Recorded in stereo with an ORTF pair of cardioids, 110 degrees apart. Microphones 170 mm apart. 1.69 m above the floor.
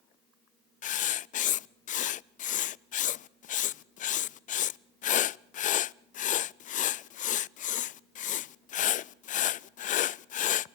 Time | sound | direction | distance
0.8 | writing | 50° left | 0.5 m